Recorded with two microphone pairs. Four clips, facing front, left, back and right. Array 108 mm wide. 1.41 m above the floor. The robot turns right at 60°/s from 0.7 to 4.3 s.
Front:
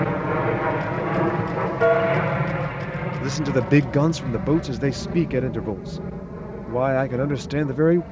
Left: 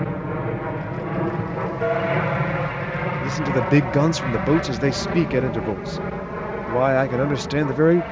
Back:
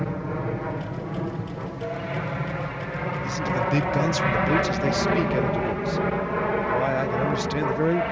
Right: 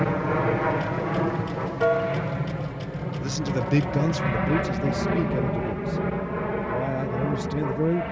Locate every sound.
0.0 s an aircraft: 30° right; by 8.1 s 170° left
1.8 s a piano: 20° right; by 2.4 s 20° left
3.2 s a man speaking: 10° left; by 8.0 s 75° left